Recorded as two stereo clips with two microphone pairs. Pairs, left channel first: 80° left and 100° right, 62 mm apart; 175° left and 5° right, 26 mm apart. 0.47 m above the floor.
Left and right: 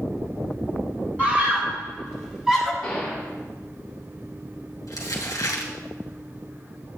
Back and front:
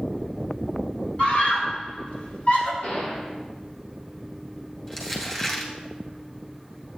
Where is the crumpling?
100° left, 2.5 m.